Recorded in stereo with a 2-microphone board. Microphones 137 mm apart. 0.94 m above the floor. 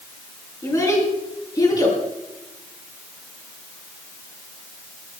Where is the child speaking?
25° left (ahead or behind), 7.5 m; by 2.0 s 30° left (ahead or behind), 6.5 m.